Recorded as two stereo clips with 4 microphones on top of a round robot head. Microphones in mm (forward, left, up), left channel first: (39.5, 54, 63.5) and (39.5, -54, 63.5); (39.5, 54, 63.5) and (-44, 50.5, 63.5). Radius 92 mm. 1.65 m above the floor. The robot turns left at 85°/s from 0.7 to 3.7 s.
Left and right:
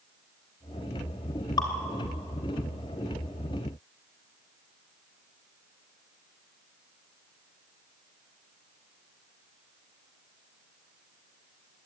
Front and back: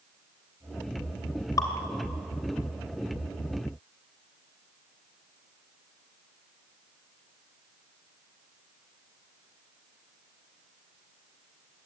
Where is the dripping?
45° left, 2.5 m; by 1.7 s 35° left, 2.5 m.